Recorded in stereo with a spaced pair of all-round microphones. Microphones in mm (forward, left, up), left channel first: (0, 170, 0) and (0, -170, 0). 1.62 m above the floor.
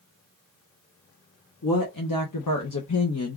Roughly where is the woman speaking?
Left.